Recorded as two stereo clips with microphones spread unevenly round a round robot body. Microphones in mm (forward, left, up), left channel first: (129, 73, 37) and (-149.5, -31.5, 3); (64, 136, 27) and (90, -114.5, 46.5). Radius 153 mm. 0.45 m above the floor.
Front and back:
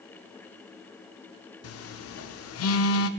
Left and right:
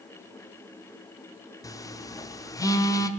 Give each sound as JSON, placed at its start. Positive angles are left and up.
{"t": 1.6, "sound": "a phone buzzing", "azimuth_deg": 30, "distance_m": 0.9}